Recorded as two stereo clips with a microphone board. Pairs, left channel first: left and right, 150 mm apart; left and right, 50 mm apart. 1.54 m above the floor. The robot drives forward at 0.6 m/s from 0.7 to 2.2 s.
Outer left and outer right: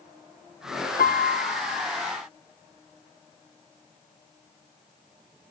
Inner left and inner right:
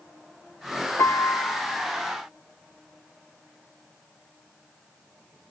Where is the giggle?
I don't hear a giggle.